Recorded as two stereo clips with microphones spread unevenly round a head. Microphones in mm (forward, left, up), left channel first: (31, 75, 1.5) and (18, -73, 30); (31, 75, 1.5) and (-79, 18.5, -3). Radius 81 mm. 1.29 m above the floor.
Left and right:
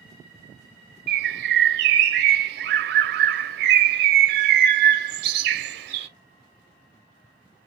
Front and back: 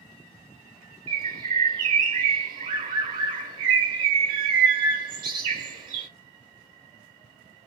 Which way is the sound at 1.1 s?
95° right.